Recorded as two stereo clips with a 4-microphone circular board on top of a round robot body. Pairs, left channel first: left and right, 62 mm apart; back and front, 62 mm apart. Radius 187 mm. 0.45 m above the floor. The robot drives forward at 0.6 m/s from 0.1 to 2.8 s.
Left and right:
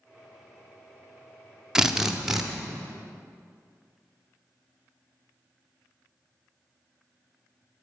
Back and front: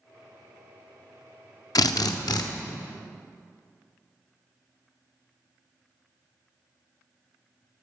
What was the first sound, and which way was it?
A drill, 170° right.